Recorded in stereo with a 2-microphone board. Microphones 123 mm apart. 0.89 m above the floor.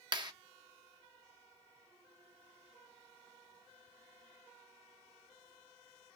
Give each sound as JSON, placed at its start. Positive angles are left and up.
{"t": 0.1, "sound": "a clap", "side_deg": -40, "distance_m": 0.7}